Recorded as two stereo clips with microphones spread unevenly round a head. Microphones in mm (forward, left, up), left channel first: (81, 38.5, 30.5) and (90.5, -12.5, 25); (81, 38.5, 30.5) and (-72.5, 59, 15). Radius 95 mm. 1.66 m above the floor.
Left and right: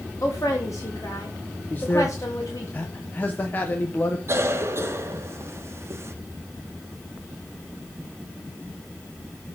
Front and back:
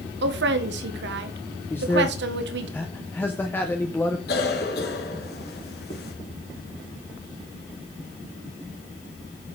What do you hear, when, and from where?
0.2 s a woman speaking: 170° left, 1.2 m
1.7 s a man speaking: 60° left, 0.8 m
4.3 s a cough: 45° right, 1.5 m